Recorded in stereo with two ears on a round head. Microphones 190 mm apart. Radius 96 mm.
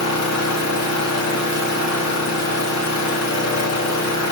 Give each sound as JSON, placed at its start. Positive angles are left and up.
{"t": 0.0, "sound": "an engine running", "side_deg": 80, "distance_m": 3.0}